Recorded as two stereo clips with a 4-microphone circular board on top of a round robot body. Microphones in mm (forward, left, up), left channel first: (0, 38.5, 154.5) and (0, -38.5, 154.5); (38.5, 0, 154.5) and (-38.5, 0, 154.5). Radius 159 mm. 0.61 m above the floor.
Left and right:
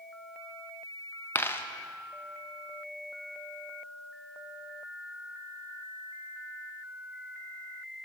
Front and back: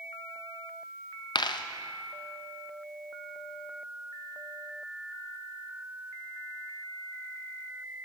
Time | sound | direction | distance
1.4 | a dropped coin | 30° left | 0.6 m